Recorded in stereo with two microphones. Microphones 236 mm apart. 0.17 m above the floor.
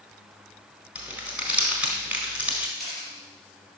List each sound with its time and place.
0.9 s crumpling: 5° right (ahead or behind), 1.5 m
2.8 s a camera shutter: centre (ahead or behind), 3.5 m